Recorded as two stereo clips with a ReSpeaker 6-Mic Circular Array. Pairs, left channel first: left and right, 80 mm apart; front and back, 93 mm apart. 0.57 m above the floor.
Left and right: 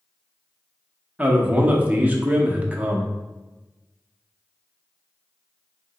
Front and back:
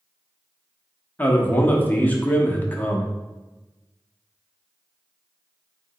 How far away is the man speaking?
About 0.6 m.